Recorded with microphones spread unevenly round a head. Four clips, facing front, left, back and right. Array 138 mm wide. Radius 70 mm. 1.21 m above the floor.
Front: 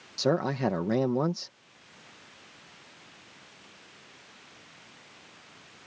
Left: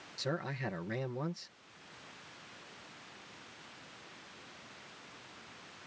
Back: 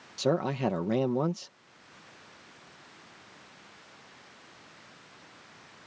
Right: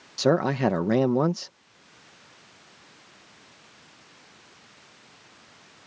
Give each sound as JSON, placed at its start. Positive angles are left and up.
{"t": 0.2, "sound": "a man speaking", "azimuth_deg": -85}